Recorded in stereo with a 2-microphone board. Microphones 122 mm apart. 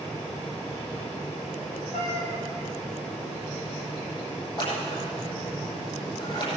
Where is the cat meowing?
80° left, 5 m.